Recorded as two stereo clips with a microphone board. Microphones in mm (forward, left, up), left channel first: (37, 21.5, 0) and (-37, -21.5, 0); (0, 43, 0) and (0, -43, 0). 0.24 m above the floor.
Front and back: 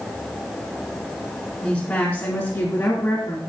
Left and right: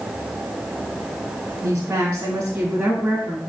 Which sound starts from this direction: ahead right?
A woman speaking, at 1.6 s.